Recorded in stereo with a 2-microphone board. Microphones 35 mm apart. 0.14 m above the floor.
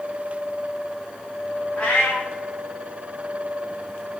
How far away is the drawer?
I don't hear a drawer.